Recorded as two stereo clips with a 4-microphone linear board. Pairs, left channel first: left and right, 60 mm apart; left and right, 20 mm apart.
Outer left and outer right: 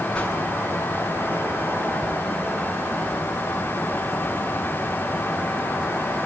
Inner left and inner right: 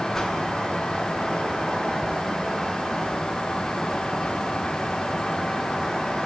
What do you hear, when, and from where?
0.1 s a whoosh: 15° left (ahead or behind), 6.5 m